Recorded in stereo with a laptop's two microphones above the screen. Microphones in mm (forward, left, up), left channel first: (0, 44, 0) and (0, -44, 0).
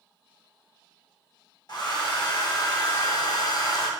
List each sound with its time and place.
1.7 s a hair dryer: 50° left (ahead or behind), 0.8 m